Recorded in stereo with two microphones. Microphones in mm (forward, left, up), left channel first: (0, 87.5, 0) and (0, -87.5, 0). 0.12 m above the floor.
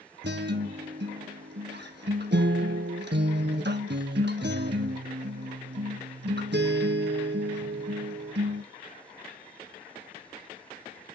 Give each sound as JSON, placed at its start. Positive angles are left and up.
{"t": 0.2, "sound": "a guitar", "side_deg": -80, "distance_m": 0.7}